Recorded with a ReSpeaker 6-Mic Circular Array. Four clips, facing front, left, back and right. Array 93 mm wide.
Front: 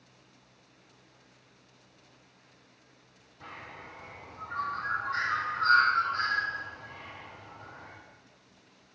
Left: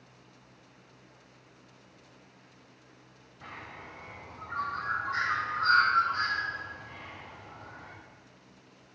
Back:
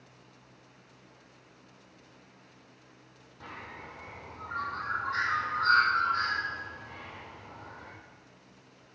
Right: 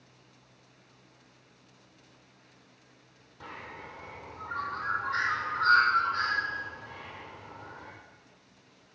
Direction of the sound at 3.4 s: 115° right.